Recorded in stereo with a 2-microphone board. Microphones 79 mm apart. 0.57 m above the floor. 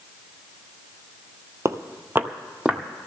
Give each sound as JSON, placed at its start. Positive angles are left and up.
{"t": 1.6, "sound": "footsteps", "side_deg": -40, "distance_m": 0.7}